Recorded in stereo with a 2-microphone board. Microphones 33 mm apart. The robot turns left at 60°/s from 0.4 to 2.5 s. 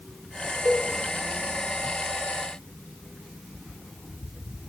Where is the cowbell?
70° right (ahead or behind), 5 m; by 0.8 s 60° right (ahead or behind), 5 m.